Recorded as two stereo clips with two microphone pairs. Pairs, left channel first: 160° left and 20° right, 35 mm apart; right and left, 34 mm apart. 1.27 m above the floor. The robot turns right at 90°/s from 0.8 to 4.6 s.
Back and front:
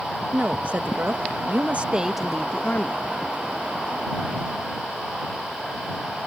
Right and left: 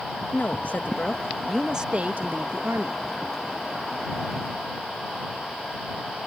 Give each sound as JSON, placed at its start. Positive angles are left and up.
{"t": 0.3, "sound": "a woman speaking", "azimuth_deg": -60}